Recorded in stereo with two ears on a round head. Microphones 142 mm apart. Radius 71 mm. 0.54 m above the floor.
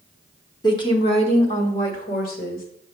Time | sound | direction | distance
0.6 | a woman speaking | 25° left (ahead or behind) | 1.2 m